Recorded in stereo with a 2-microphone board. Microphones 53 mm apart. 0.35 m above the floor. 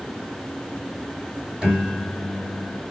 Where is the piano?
20° right (ahead or behind), 1.7 m.